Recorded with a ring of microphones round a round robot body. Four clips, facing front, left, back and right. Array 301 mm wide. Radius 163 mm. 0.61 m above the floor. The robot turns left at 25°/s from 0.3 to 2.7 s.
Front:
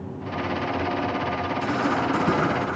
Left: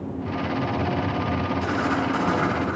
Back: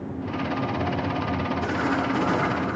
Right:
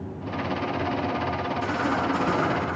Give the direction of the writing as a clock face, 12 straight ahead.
11 o'clock.